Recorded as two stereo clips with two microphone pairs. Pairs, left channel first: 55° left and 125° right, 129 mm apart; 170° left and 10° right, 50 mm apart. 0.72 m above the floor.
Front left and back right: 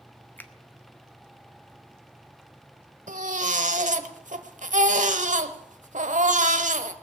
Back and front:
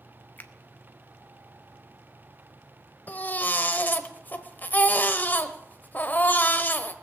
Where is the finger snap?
125° left, 1.0 m.